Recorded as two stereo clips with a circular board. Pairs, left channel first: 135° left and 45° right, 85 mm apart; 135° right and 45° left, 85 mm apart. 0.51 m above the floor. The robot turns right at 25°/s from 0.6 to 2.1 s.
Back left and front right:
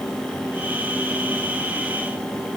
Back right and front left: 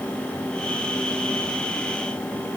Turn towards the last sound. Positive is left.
No sound to turn to.